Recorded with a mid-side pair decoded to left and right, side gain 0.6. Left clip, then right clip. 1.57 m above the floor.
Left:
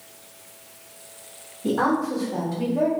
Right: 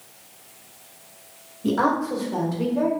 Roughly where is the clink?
No clink in this recording.